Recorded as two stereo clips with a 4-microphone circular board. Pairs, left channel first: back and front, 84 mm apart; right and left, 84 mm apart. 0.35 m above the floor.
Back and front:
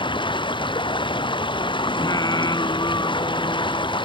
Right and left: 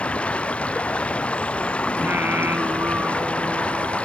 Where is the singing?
150° left.